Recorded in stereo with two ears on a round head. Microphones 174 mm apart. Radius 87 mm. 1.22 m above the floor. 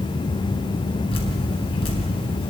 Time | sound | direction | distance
1.1 | dripping | 30° left (ahead or behind) | 3.5 m